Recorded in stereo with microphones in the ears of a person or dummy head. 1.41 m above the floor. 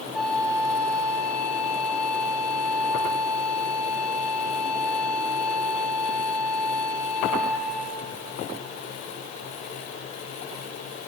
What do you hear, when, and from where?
0.1 s a flute: 5° left (ahead or behind), 4 m